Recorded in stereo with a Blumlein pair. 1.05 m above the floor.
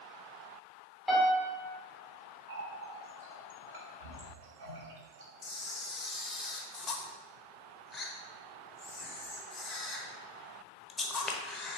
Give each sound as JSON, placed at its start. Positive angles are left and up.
{"t": 1.1, "sound": "a piano", "azimuth_deg": -5, "distance_m": 2.5}
{"t": 2.5, "sound": "a running tap", "azimuth_deg": -55, "distance_m": 2.0}
{"t": 5.4, "sound": "a camera shutter", "azimuth_deg": 10, "distance_m": 1.1}